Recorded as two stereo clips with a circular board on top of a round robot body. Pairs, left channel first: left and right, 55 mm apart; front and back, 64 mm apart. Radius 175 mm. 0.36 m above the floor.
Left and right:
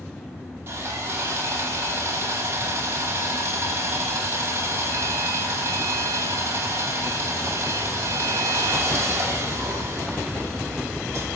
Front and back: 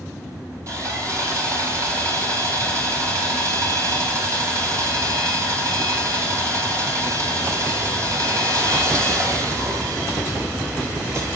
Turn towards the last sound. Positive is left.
turn(degrees=-140)